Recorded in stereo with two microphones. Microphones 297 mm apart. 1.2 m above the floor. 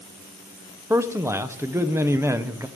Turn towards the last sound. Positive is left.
turn(degrees=-10)  # may be behind; listen again after turning